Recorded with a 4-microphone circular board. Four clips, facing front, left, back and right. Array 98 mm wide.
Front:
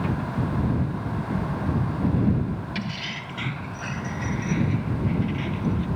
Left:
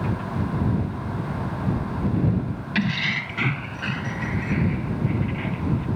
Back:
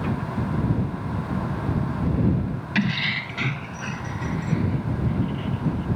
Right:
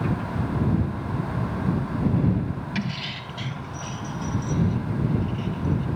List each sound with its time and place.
2.8 s keys jangling: 145° left; by 5.8 s 75° left